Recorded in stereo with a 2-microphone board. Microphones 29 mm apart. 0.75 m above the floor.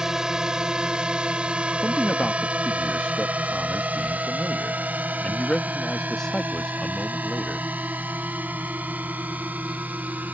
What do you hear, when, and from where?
0.0 s a drone: 25° right (ahead or behind); by 10.3 s 75° right (ahead or behind)
1.8 s a man speaking: 20° left (ahead or behind)